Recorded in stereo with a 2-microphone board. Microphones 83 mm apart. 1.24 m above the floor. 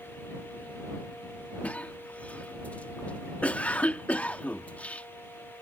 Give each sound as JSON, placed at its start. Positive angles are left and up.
{"t": 1.6, "sound": "a cough", "side_deg": 20}